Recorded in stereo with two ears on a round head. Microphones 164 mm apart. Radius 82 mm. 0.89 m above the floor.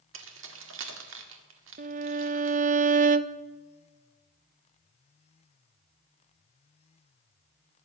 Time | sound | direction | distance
0.1 | keys jangling | 80° right | 1.8 m
1.8 | a violin | 45° right (ahead or behind) | 0.6 m